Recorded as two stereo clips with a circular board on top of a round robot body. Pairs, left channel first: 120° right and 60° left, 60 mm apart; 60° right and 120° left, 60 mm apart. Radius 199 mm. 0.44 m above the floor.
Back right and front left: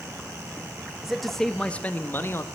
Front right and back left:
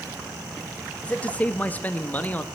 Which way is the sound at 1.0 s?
15° right.